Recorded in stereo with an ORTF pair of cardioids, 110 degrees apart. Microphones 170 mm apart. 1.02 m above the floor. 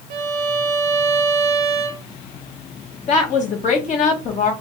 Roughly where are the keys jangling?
I don't hear keys jangling.